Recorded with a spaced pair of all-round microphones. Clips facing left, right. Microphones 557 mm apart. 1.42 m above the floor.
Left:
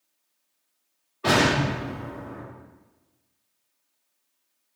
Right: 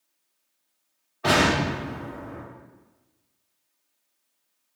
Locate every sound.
1.2 s an explosion: 10° right (ahead or behind), 1.6 m